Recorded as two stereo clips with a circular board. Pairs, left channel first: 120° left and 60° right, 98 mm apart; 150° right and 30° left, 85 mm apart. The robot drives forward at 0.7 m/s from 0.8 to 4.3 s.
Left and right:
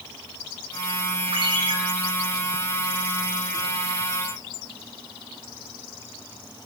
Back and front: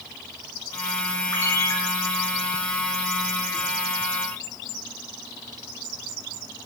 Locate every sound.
1.3 s a ringtone: 90° right, 7.5 m